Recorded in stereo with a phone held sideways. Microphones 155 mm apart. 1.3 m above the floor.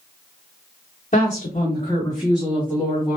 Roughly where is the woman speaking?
Left.